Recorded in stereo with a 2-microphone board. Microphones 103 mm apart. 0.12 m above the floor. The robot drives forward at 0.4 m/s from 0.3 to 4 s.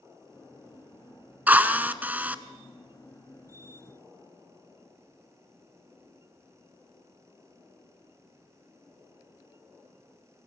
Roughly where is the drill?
Centre.